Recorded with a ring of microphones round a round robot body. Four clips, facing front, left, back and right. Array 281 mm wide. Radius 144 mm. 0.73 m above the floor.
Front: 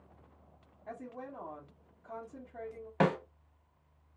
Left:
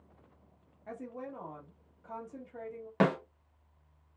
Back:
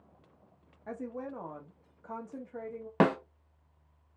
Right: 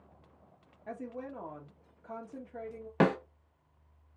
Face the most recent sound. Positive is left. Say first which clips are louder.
# right 1 dB, back 3 dB
turn(degrees=-170)